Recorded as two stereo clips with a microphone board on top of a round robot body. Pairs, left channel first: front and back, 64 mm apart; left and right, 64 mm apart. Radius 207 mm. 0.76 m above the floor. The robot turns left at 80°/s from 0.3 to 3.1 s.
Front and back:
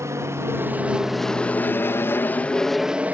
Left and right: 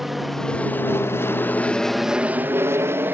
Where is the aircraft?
175° right; by 3.1 s 125° right.